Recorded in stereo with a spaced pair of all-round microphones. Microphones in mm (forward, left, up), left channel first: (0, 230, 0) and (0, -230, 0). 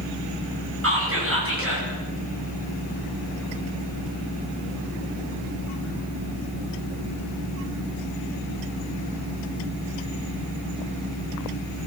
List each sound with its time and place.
0.8 s whispering: 30° right (ahead or behind), 7.5 m